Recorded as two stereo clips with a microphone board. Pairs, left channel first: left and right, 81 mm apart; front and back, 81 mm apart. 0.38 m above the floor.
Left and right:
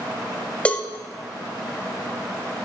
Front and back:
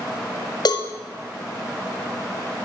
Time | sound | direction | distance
0.7 | a cowbell | 15° left | 0.6 m